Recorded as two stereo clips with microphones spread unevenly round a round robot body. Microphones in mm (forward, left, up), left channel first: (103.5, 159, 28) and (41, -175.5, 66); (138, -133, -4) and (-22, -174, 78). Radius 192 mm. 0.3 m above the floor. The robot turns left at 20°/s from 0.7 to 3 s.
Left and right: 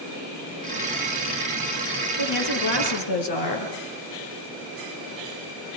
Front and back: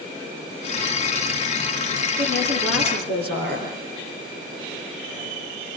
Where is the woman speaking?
110° left, 6.5 m; by 3.7 s 90° left, 6.5 m.